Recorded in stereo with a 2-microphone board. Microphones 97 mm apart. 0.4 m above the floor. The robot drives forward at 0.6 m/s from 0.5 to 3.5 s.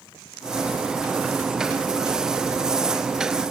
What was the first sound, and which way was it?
Only background noise.